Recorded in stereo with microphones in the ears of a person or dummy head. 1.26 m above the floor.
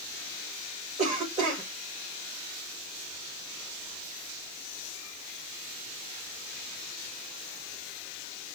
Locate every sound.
1.0 s a cough: 35° right (ahead or behind), 1.7 m